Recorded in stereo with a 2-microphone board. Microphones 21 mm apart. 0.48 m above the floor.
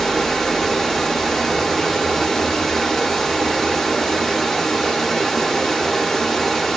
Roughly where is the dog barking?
I don't hear a dog barking.